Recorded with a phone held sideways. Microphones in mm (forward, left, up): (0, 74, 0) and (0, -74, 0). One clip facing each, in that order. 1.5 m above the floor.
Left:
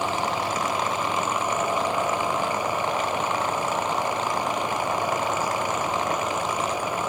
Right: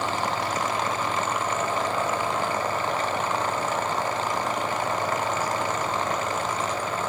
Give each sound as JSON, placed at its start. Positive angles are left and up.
{"t": 0.0, "sound": "a fan", "side_deg": 15, "distance_m": 1.7}